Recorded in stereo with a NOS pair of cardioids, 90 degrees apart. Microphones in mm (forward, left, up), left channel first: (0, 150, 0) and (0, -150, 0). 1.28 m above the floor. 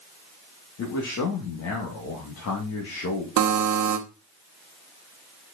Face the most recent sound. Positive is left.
turn(degrees=-70)